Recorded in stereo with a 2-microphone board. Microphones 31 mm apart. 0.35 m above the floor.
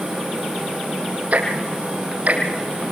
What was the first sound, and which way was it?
Ticking, 55° right (ahead or behind).